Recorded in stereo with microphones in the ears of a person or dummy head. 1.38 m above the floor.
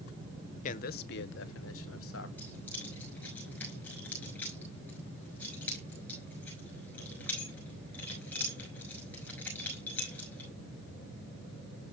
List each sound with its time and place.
0.6 s a man speaking: 45° left (ahead or behind), 1.1 m; by 2.3 s 80° left, 1.7 m
2.4 s keys jangling: 15° left (ahead or behind), 5.5 m